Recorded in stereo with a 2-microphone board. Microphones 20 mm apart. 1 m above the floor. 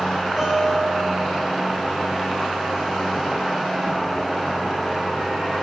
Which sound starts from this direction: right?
A guitar, at 0.4 s.